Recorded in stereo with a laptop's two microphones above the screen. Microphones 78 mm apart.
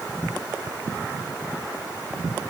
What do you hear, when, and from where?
Only background noise.